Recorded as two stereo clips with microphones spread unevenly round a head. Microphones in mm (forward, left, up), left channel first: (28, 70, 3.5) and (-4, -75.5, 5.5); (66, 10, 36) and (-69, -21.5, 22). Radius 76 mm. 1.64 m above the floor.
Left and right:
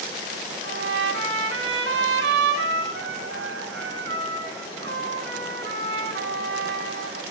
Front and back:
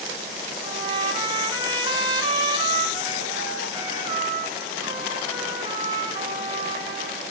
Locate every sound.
0.6 s a trumpet: 105° right, 4.5 m